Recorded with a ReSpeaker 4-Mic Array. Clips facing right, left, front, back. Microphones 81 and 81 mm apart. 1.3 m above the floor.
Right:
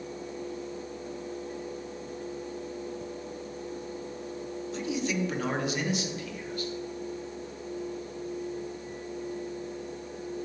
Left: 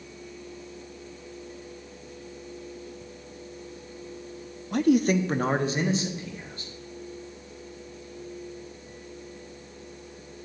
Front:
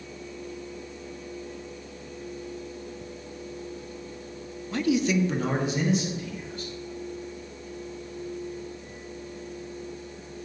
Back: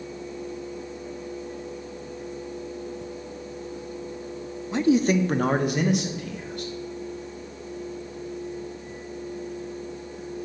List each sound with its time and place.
4.7 s a man speaking: 110° left, 0.5 m; by 6.7 s 155° left, 2.5 m